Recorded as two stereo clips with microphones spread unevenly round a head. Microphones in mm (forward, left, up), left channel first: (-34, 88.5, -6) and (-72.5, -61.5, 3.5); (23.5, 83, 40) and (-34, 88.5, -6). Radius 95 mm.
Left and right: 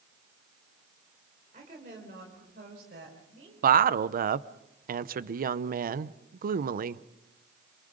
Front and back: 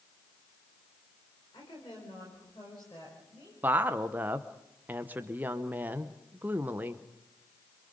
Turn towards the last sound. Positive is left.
turn(degrees=-135)